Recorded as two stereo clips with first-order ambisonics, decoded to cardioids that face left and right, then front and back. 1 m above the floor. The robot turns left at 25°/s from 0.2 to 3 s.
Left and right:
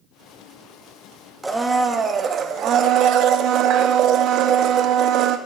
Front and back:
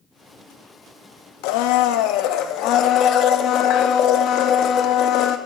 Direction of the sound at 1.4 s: 5° right.